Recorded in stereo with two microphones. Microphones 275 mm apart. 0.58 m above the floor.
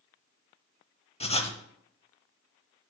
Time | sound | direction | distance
1.2 | writing | 20° left (ahead or behind) | 0.8 m